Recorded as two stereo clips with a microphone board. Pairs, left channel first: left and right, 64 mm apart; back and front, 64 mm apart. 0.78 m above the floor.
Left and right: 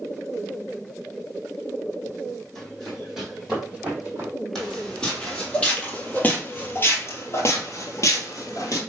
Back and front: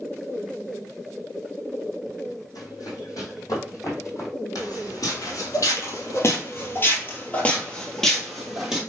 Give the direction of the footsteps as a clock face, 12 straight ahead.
6 o'clock.